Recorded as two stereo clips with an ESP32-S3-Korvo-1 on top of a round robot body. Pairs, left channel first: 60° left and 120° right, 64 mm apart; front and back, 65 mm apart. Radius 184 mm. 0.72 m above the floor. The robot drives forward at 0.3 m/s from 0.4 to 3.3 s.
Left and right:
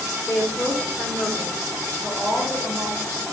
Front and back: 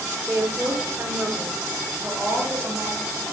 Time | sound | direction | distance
0.3 | a woman speaking | 110° left | 1.7 m